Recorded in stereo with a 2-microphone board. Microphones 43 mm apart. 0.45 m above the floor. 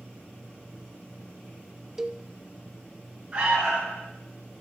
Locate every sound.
2.0 s a cowbell: 10° right (ahead or behind), 0.6 m
3.3 s an alarm: 25° right (ahead or behind), 5.5 m